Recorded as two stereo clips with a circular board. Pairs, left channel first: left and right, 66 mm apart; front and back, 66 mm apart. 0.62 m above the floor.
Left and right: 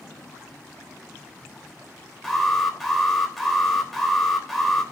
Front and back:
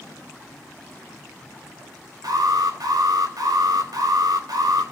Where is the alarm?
Straight behind, 3 m.